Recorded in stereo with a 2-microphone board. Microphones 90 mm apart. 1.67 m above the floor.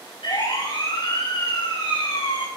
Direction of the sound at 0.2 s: 65° left (ahead or behind).